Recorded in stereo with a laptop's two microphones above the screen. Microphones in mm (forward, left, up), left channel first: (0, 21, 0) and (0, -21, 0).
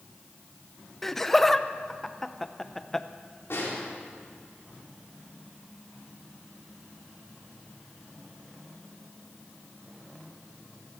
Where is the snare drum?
80° left, 3.5 m.